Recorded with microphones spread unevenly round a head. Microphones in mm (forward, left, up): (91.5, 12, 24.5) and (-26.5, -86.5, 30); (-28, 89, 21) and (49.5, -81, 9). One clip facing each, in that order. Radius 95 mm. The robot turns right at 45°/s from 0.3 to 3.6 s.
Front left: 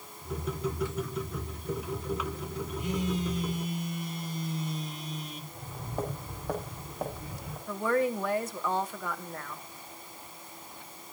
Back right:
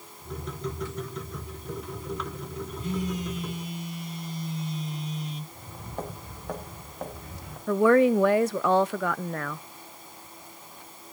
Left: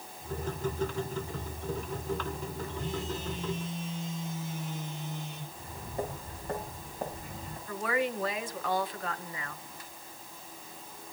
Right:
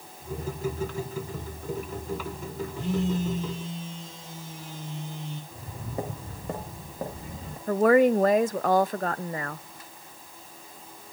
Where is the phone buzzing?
40° right, 6.5 m; by 5.4 s 5° right, 6.5 m.